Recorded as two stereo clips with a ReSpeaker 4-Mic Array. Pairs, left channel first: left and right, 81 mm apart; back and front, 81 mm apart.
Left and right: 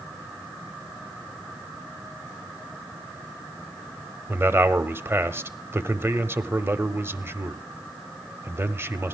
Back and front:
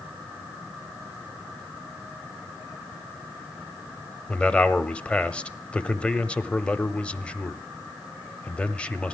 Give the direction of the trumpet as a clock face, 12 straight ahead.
I don't hear a trumpet.